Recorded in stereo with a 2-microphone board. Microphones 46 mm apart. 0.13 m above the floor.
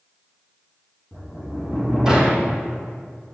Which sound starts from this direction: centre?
A sliding door, at 1.1 s.